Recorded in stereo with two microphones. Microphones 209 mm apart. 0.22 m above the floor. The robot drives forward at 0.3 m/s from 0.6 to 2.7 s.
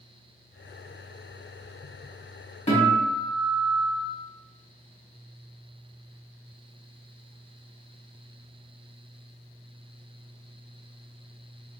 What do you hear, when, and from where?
2.7 s a guitar: 30° left (ahead or behind), 1.7 m